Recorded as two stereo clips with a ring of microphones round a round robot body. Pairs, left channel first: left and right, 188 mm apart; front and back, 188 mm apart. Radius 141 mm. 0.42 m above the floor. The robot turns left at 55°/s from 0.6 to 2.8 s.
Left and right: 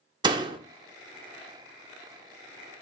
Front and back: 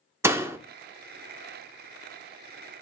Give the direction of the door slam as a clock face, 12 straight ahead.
4 o'clock.